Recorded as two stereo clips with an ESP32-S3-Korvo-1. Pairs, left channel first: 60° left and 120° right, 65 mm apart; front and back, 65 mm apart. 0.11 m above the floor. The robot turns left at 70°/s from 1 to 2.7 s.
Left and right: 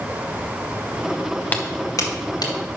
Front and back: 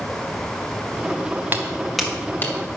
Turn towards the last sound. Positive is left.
turn(degrees=40)